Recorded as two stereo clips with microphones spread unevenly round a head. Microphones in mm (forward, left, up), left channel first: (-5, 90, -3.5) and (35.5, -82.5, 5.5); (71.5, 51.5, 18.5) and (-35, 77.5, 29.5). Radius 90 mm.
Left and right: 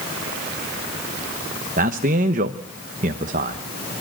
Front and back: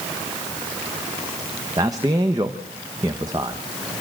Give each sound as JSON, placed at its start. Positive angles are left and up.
{"t": 1.8, "sound": "a man speaking", "azimuth_deg": -125, "distance_m": 1.0}